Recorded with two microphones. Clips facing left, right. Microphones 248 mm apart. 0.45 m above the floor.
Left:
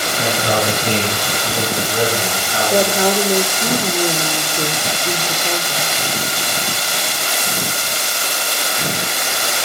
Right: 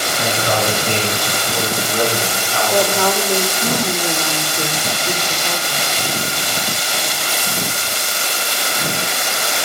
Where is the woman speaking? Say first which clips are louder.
Left 2 dB; 15° left (ahead or behind), 1.2 m.